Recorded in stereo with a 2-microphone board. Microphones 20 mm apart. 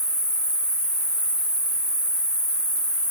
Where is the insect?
60° right (ahead or behind), 0.9 m.